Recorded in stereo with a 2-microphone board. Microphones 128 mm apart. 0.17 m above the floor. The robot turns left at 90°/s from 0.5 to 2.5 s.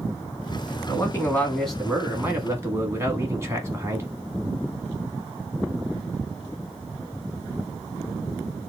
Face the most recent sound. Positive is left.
turn(degrees=-20)  # may be behind; listen again after turning